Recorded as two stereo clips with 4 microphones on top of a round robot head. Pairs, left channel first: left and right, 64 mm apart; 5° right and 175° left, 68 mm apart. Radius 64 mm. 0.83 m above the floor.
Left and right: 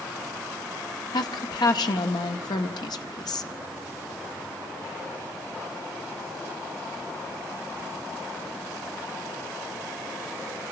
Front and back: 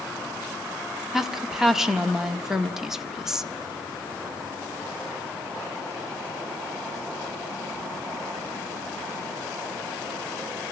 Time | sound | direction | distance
1.1 | a woman speaking | 95° left | 1.8 m